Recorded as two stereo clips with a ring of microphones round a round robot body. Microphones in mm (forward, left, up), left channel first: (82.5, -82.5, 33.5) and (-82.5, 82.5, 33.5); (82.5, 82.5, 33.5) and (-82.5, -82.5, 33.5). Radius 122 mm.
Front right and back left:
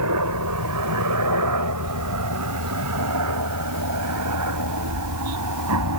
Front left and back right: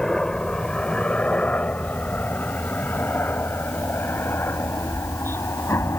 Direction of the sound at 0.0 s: 130° left.